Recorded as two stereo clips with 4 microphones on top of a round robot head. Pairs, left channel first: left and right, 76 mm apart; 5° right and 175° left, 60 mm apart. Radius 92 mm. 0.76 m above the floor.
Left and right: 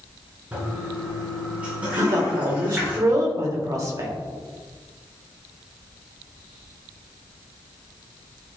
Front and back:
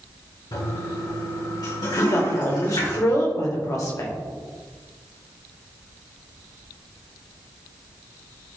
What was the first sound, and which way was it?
A toilet flushing, 15° right.